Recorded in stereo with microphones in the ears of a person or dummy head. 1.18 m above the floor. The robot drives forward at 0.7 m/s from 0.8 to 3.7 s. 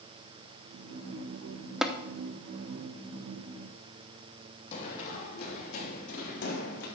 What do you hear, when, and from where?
1.8 s tapping: centre (ahead or behind), 0.7 m
4.7 s running footsteps: 35° left (ahead or behind), 3 m; by 6.9 s 60° left (ahead or behind), 4.5 m